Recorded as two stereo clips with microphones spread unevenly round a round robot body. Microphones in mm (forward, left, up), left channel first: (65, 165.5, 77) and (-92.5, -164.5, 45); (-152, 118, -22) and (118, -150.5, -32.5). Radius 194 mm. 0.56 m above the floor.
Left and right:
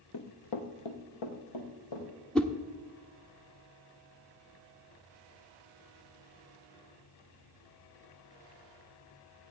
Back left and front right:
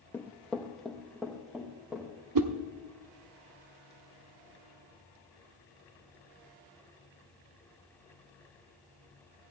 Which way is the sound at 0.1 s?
55° left.